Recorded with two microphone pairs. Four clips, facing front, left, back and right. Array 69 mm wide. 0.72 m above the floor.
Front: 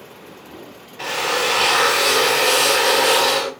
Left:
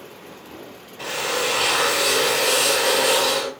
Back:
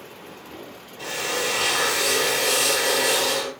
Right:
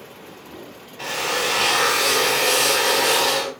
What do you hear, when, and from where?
1.0 s a drill: straight ahead, 2 m